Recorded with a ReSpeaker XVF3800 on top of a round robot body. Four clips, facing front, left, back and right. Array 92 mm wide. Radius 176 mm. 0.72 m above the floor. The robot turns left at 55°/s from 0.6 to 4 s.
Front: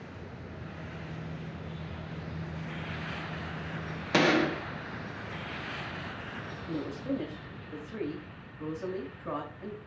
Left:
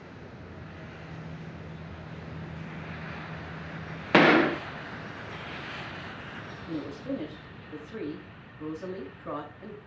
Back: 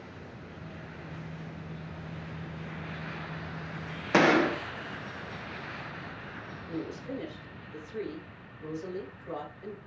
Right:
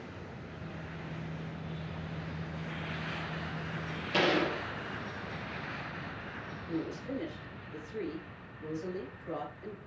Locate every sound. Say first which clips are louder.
4.1 s a gunshot: left 9 dB, back 2 dB; 115° left, 1.4 m
6.7 s a woman speaking: left 3 dB, front 3 dB; 45° left, 7.5 m